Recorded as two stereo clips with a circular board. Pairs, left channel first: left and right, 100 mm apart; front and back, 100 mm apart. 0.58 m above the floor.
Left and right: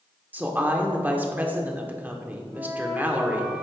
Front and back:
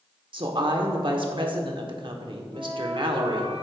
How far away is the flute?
About 2.5 m.